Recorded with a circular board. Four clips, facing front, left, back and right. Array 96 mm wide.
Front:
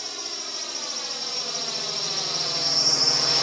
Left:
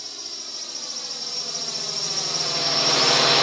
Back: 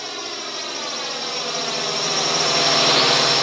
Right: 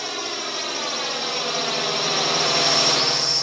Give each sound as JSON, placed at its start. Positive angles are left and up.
{"t": 0.0, "sound": "a drone", "azimuth_deg": -115}